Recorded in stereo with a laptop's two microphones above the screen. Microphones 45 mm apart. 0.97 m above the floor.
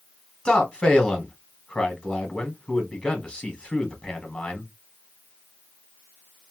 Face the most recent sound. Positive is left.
turn(degrees=25)  # may be behind; listen again after turning